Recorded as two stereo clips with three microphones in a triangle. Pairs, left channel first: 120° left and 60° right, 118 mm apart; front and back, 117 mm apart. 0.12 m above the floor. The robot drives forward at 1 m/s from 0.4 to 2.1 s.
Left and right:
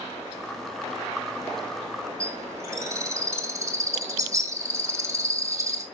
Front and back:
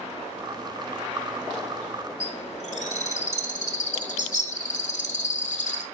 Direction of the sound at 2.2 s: 5° left.